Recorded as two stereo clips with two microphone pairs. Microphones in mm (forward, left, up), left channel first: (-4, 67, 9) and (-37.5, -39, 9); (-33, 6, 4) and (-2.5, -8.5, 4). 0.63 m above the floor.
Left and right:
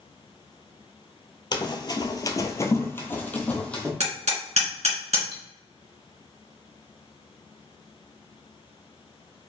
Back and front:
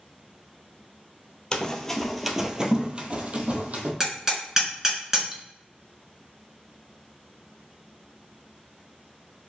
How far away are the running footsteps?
About 0.8 m.